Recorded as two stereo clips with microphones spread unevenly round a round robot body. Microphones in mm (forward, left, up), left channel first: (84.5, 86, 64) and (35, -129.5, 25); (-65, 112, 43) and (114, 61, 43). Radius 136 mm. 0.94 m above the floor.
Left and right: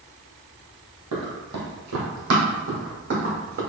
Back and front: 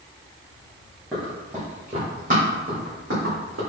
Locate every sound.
1.1 s running footsteps: 105° right, 1.8 m; by 3.6 s 60° right, 3 m